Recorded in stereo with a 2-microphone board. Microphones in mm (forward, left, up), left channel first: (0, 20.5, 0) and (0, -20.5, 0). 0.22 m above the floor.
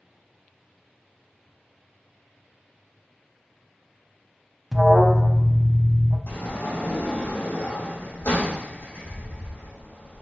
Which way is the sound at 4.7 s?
5° left (ahead or behind).